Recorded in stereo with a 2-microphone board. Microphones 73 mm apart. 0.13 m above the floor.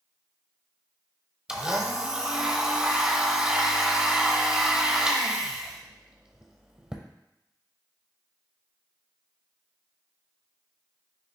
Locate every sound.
1.5 s a blender: 15° right (ahead or behind), 0.7 m